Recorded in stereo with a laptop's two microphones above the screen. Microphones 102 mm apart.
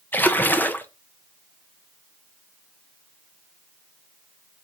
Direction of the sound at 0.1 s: 15° left (ahead or behind).